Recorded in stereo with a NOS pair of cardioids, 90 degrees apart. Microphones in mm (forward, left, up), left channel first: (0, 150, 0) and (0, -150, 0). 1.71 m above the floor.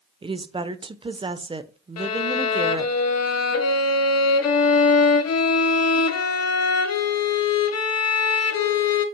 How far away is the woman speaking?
About 1.0 m.